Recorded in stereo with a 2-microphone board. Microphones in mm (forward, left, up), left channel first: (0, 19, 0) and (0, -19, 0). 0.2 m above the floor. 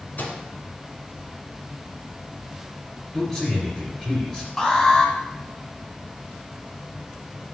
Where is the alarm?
15° left (ahead or behind), 1.3 m.